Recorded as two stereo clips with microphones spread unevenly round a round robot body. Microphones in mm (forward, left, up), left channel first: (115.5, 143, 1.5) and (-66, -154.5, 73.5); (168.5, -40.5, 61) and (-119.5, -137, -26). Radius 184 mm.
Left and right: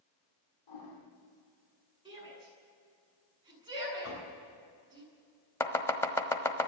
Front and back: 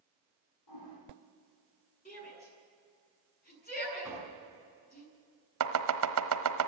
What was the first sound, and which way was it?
A toilet flushing, 50° left.